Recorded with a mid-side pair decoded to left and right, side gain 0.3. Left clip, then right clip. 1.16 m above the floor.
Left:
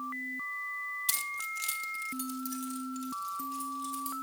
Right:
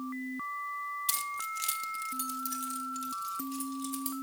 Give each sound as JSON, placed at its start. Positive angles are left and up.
{"t": 1.1, "sound": "keys jangling", "azimuth_deg": 15, "distance_m": 0.6}